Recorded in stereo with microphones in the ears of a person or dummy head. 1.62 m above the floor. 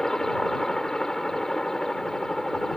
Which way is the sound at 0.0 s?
Centre (ahead or behind).